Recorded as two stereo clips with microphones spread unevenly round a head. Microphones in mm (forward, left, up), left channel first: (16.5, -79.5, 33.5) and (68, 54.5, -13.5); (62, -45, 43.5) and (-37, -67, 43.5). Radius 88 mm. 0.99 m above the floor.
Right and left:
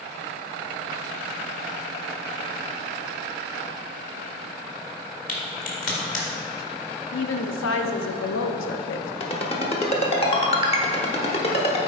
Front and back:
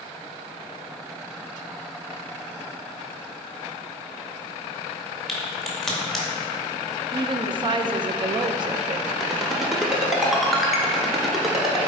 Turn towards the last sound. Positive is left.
turn(degrees=-80)